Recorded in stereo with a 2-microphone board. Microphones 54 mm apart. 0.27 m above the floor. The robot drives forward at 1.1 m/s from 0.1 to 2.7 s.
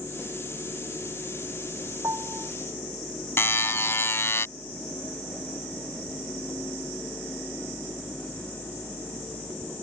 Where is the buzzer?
50° left (ahead or behind).